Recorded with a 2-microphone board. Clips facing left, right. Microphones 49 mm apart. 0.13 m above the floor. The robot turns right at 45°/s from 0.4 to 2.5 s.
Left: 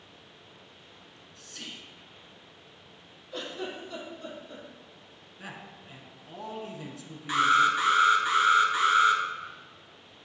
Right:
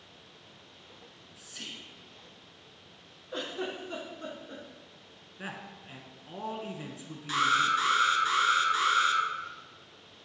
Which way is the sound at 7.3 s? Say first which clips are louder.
Left 3 dB; 20° left (ahead or behind).